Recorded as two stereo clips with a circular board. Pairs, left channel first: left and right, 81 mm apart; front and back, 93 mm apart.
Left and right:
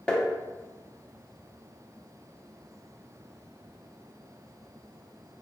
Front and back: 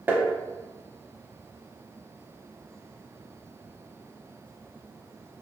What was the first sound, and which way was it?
Tapping, 150° left.